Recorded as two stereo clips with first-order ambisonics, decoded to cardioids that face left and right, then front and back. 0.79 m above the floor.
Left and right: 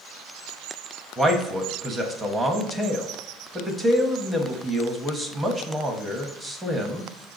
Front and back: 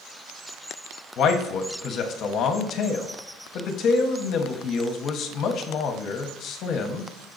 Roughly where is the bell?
No bell in this recording.